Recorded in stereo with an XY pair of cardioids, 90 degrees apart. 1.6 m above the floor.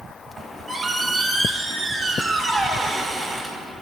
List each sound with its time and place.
0.4 s a squeak: 15° right, 2 m